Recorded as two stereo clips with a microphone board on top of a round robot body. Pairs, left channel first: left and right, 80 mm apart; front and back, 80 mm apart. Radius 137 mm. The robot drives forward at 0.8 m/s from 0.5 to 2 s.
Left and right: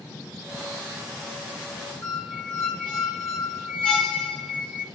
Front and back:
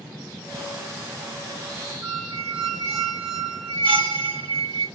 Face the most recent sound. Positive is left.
turn(degrees=170)